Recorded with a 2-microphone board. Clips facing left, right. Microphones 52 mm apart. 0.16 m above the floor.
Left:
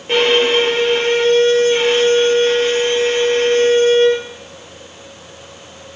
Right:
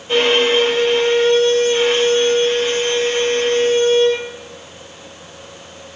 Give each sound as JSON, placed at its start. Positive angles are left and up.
{"t": 0.1, "sound": "a violin", "side_deg": 50, "distance_m": 3.0}